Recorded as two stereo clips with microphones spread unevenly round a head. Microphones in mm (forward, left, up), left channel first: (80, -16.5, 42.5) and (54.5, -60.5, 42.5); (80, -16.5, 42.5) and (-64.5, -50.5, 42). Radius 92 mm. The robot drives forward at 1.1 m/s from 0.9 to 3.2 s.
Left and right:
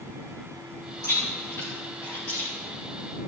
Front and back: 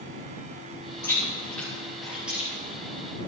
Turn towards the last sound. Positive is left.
turn(degrees=125)